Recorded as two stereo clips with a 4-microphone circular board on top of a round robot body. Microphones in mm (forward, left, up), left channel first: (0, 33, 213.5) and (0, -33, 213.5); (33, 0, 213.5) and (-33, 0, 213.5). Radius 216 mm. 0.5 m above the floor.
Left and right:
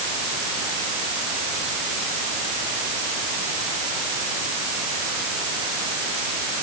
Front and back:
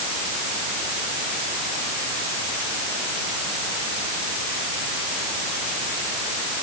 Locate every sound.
Only background noise.